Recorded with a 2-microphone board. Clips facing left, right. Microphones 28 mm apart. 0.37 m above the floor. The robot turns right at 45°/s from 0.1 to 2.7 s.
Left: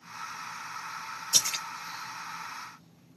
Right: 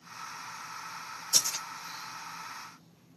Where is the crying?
I don't hear crying.